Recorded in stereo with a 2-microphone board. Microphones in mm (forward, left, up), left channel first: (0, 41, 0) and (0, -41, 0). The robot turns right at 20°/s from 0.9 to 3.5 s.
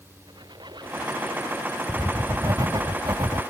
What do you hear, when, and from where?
0.3 s a squeak: 70° right (ahead or behind); by 1.8 s 50° right (ahead or behind)
1.9 s writing: 150° right; by 3.4 s 120° right